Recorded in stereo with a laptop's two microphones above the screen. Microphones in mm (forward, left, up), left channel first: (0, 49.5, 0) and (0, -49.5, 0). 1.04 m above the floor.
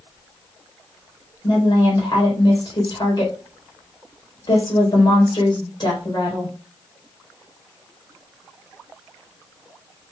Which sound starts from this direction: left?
A woman speaking, at 1.4 s.